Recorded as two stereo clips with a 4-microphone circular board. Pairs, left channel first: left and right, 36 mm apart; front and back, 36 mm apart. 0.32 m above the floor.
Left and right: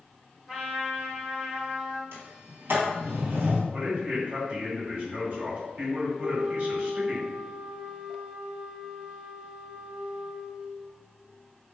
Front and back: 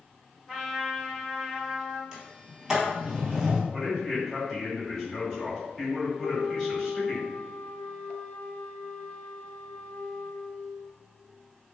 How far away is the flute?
About 0.5 m.